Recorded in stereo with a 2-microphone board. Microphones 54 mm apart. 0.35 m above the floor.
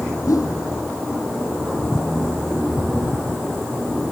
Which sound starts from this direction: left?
A whoosh, at 0.3 s.